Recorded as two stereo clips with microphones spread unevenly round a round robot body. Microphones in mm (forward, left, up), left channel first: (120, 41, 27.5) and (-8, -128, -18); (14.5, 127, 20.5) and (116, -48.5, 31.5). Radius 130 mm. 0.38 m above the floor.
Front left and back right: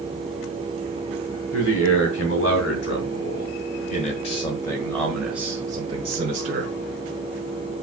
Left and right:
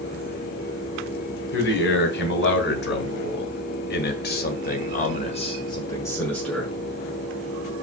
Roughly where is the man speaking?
Left.